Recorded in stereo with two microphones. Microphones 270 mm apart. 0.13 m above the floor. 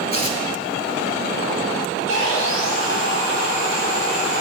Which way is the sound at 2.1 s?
45° left (ahead or behind).